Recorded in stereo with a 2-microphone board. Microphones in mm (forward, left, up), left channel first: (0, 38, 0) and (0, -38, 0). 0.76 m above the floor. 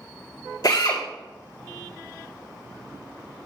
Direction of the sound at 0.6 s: 55° left (ahead or behind).